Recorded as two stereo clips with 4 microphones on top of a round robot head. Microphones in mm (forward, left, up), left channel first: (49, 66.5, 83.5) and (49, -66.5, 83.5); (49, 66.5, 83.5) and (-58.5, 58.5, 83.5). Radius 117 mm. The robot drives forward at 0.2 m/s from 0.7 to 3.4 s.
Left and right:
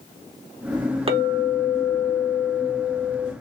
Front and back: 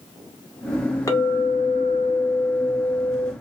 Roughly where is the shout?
No shout in this recording.